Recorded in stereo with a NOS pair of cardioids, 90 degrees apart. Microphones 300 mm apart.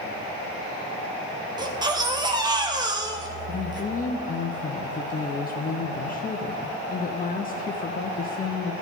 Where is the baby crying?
15° right, 0.9 m.